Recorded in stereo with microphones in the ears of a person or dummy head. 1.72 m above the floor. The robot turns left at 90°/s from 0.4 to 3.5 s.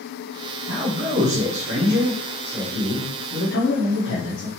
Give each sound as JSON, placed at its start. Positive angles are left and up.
{"t": 0.7, "sound": "a man speaking", "azimuth_deg": -20, "distance_m": 1.8}